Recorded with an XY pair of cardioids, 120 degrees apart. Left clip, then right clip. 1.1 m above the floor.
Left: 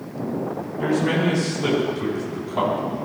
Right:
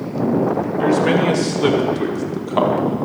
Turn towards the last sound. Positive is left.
turn(degrees=-55)